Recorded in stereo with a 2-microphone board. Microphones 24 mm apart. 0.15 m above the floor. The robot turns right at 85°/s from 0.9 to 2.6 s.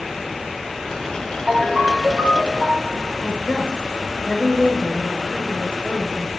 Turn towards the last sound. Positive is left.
turn(degrees=30)  # may be behind; listen again after turning